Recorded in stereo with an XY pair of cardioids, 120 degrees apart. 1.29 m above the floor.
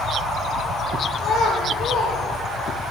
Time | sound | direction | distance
1.2 | a child speaking | 55° left | 4 m